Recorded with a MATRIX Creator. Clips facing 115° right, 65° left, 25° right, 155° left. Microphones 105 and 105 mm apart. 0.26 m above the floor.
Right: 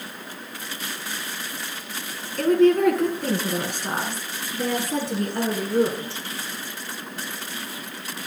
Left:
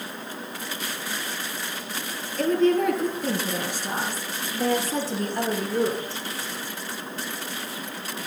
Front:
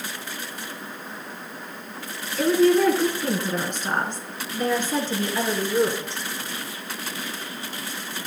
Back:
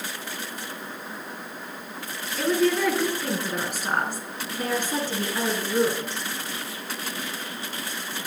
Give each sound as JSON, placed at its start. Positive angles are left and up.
{"t": 2.4, "sound": "a woman speaking", "azimuth_deg": -110, "distance_m": 3.0}